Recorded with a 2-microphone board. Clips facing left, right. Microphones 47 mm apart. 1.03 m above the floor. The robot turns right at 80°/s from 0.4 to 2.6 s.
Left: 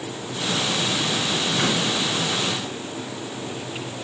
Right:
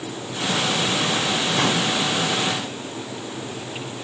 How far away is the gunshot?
About 5 m.